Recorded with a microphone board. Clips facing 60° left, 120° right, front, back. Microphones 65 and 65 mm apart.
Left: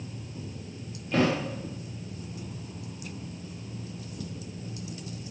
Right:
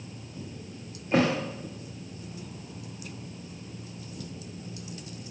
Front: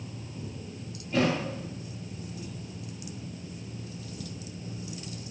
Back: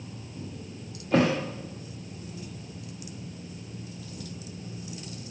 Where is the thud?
Straight behind, 4.5 m.